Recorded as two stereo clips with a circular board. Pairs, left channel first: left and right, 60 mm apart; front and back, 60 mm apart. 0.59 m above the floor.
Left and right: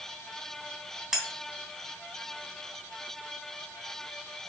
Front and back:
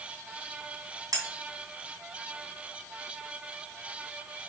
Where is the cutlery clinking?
170° right, 2.5 m.